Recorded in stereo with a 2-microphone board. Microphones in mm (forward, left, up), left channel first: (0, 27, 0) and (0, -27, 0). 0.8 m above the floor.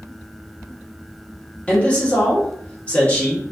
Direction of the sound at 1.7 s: 25° left (ahead or behind).